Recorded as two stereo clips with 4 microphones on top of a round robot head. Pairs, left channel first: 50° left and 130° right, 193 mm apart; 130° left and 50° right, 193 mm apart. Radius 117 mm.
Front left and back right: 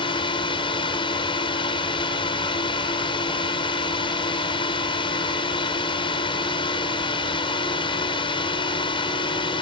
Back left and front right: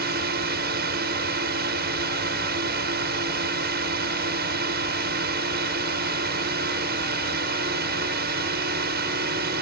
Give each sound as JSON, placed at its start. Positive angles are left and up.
{"t": 0.0, "sound": "a drone", "azimuth_deg": -15}